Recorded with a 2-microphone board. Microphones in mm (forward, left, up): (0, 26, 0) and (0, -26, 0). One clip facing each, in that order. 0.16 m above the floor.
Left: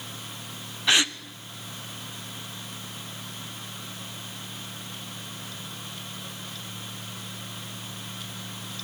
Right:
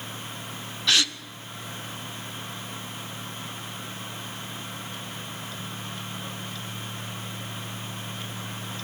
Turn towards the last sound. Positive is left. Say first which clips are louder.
# left 1 dB
turn(degrees=20)  # may be behind; listen again after turning